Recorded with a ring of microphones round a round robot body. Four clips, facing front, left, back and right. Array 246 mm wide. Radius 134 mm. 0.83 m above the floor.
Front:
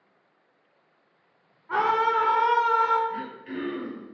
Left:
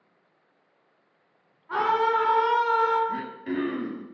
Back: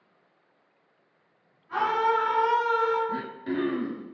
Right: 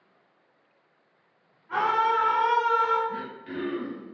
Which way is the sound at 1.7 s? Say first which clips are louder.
Left 1 dB, front 1 dB; 15° left.